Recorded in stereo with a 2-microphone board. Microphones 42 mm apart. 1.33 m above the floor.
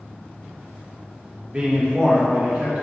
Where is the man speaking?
25° right (ahead or behind), 1.3 m; by 2.8 s 45° right (ahead or behind), 1.8 m.